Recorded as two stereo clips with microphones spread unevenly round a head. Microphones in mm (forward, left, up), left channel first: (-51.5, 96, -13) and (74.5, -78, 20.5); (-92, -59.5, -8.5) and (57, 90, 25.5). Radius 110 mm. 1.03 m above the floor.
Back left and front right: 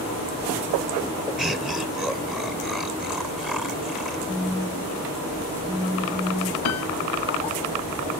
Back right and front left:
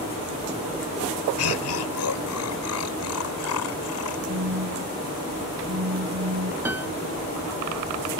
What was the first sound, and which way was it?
Laughter, 145° right.